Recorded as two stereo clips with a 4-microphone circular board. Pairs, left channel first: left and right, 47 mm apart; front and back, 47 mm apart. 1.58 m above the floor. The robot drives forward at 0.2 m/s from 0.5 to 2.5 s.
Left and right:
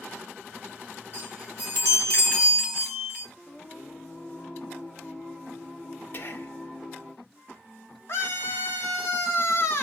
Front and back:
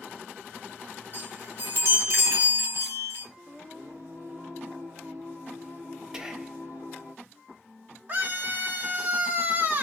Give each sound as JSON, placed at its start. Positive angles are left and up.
{"t": 1.1, "sound": "a chime", "azimuth_deg": 140, "distance_m": 3.0}
{"t": 3.5, "sound": "singing", "azimuth_deg": 155, "distance_m": 2.0}
{"t": 6.1, "sound": "whispering", "azimuth_deg": 110, "distance_m": 0.7}
{"t": 8.1, "sound": "a scream", "azimuth_deg": 130, "distance_m": 1.4}